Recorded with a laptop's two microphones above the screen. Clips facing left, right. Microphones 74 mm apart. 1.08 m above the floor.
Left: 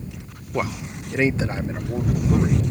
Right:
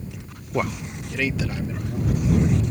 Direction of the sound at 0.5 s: 5° right (ahead or behind).